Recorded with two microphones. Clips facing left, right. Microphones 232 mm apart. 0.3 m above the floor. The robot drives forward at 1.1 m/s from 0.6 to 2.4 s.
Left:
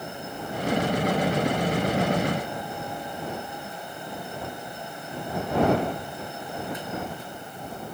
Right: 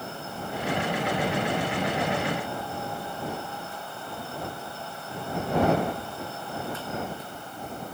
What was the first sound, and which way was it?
Only background noise.